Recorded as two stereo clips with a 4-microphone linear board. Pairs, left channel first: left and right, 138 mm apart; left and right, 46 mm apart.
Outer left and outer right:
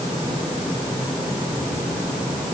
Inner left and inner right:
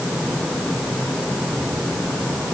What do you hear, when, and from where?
Only background noise.